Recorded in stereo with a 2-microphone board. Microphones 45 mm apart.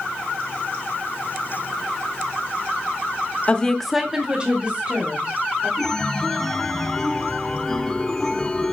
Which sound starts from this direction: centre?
A chime, at 5.8 s.